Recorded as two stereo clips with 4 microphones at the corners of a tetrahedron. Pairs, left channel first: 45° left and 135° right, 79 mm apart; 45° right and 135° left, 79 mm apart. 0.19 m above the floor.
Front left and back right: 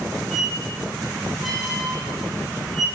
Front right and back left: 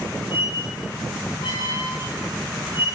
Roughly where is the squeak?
Ahead right.